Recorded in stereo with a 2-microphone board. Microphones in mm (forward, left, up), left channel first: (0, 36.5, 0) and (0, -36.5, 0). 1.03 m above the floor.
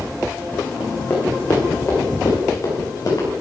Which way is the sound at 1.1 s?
20° left (ahead or behind).